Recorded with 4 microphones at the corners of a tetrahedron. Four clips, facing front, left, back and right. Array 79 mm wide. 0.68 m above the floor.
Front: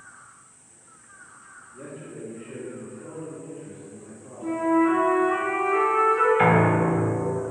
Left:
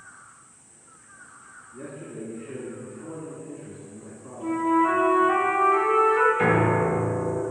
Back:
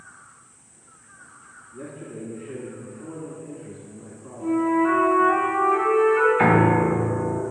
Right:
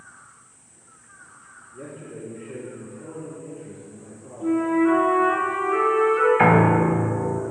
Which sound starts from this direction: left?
A flute, at 4.4 s.